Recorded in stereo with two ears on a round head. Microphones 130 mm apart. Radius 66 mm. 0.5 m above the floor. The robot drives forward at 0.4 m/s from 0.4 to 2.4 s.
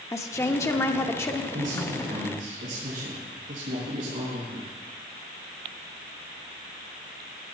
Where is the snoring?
No snoring in this recording.